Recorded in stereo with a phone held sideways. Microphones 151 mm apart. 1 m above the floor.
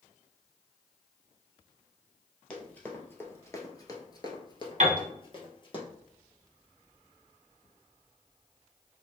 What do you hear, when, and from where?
2.5 s running footsteps: 10° left (ahead or behind), 1.4 m; by 5.8 s 35° left (ahead or behind), 1.5 m
4.8 s a piano: 50° right (ahead or behind), 1.1 m